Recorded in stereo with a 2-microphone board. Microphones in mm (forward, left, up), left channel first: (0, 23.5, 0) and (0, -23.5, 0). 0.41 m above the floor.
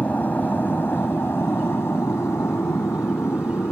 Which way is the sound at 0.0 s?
35° left (ahead or behind).